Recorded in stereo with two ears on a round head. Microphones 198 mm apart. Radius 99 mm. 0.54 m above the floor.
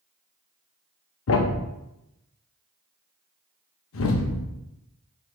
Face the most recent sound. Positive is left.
turn(degrees=60)  # may be behind; listen again after turning